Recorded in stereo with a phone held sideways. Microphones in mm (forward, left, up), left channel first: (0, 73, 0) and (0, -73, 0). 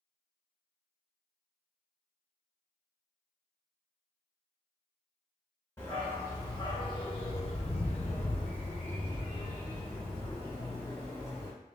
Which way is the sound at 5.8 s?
20° left (ahead or behind).